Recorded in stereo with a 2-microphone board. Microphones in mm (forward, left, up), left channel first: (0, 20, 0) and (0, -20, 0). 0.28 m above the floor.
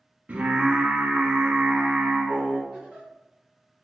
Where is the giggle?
30° right (ahead or behind), 1.3 m.